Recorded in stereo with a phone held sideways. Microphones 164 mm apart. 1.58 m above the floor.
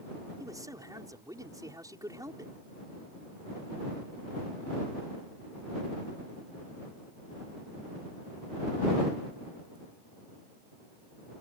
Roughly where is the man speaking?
Right.